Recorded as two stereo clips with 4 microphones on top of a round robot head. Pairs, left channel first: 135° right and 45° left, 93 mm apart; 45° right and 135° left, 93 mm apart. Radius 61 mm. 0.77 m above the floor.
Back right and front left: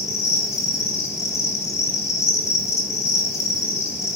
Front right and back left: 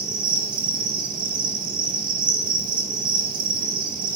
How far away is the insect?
About 3 m.